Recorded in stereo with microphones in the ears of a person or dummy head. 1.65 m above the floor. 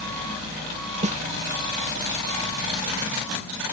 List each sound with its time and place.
1.0 s a snare drum: 35° right (ahead or behind)